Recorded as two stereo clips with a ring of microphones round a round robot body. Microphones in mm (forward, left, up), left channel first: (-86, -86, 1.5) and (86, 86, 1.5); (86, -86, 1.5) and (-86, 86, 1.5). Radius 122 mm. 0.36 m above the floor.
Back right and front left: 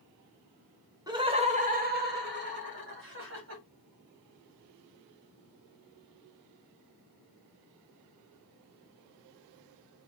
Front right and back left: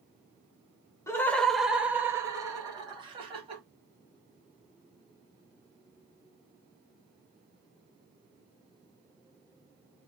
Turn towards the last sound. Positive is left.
turn(degrees=70)